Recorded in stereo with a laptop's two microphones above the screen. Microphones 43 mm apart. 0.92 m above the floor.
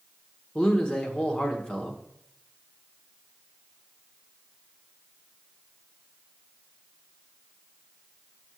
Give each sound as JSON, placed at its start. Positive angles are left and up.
{"t": 0.6, "sound": "a man speaking", "side_deg": 20, "distance_m": 1.1}